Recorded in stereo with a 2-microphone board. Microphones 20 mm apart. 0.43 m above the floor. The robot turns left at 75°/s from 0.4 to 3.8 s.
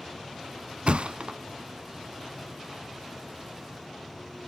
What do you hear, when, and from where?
0.9 s a thud: 70° right (ahead or behind), 0.6 m; by 1.4 s 50° right (ahead or behind), 0.6 m